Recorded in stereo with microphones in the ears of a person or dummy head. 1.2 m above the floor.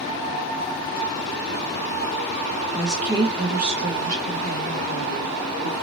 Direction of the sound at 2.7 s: 10° left (ahead or behind).